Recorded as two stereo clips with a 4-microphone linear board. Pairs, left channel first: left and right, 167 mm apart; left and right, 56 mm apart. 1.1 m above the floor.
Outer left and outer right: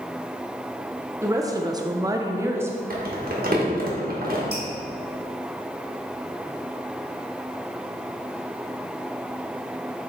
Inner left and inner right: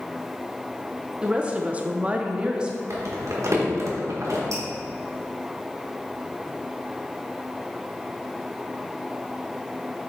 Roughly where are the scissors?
No scissors in this recording.